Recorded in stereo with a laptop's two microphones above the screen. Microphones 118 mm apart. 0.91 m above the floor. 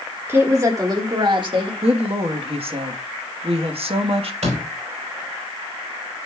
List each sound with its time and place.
0.3 s a woman speaking: 20° right (ahead or behind), 1.3 m; by 1.7 s 50° right (ahead or behind), 1.5 m
1.8 s a woman speaking: 55° right (ahead or behind), 1.2 m
4.4 s a door slam: 75° right (ahead or behind), 5 m